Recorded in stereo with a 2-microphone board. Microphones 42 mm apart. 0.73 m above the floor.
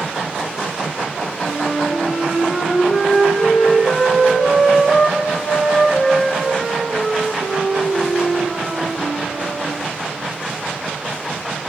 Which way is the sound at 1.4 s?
20° right (ahead or behind).